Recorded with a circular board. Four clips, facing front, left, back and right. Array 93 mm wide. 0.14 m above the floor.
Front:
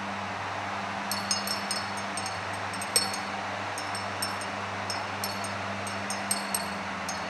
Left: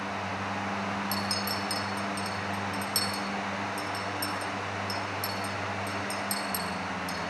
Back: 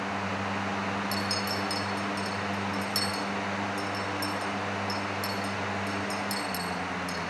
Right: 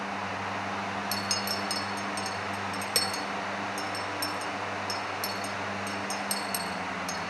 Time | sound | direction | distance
1.1 | a clink | 55° right | 2 m